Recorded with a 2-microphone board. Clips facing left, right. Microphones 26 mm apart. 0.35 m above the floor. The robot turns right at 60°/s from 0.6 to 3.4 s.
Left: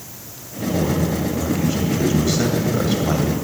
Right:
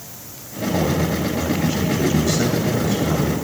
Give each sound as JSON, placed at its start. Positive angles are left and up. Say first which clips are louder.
{"t": 0.7, "sound": "a man speaking", "louder": "even", "azimuth_deg": -75, "distance_m": 1.7}